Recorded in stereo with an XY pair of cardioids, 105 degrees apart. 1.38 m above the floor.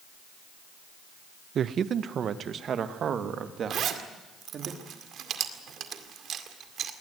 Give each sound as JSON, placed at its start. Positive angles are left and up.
{"t": 1.6, "sound": "a man speaking", "azimuth_deg": -55, "distance_m": 0.7}
{"t": 3.7, "sound": "a zipper", "azimuth_deg": -65, "distance_m": 2.0}